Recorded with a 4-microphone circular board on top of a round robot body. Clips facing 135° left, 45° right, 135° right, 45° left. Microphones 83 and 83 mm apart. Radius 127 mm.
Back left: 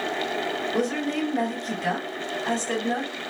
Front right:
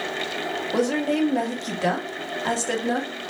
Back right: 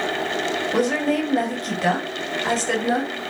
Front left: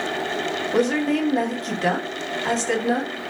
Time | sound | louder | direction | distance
0.7 | a woman speaking | front right 6 dB, front left 1 dB | 50° right | 1.7 m